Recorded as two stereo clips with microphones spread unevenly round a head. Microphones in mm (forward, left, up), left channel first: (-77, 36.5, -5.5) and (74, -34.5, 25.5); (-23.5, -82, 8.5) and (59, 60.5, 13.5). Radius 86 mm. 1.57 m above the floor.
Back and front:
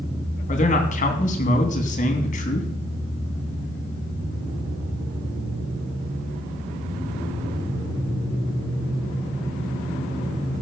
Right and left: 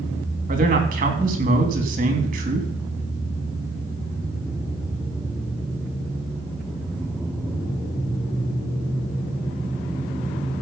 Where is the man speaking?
105° left, 3 m.